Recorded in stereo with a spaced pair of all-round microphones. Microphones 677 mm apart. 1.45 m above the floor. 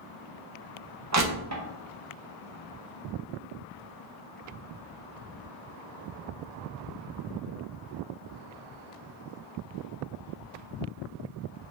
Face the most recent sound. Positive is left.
turn(degrees=-25)  # may be behind; listen again after turning